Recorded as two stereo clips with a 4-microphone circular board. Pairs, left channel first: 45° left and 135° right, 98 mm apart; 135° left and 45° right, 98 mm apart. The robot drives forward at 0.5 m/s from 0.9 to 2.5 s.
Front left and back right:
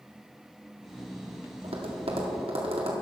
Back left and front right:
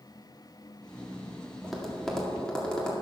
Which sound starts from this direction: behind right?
Tapping, at 1.6 s.